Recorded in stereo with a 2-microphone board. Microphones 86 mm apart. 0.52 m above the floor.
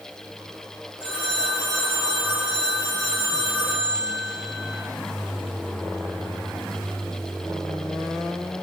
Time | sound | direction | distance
1.0 | a phone ringing | 20° left (ahead or behind) | 8.5 m